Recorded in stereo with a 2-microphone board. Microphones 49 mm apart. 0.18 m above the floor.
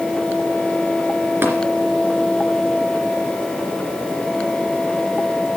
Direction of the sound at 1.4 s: 50° right (ahead or behind).